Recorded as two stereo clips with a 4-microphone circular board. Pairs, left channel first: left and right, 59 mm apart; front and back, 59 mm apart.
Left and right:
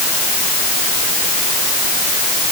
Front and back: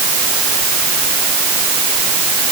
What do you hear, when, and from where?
Only background noise.